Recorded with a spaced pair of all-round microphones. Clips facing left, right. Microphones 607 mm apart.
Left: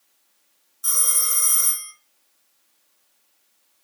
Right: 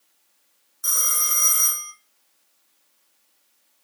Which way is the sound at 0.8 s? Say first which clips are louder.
Left 1 dB; 20° right (ahead or behind).